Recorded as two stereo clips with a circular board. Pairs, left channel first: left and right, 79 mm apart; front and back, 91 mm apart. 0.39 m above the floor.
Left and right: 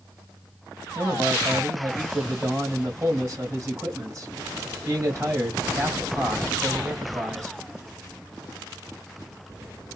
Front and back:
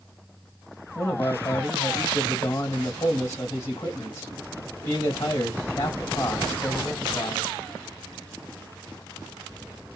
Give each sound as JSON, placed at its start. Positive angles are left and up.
{"t": 0.9, "sound": "a man speaking", "azimuth_deg": -50, "distance_m": 2.0}